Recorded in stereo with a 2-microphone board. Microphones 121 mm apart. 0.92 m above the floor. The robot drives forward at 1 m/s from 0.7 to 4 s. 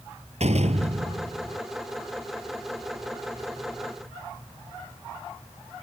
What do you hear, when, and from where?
0.4 s a door slam: 60° right (ahead or behind)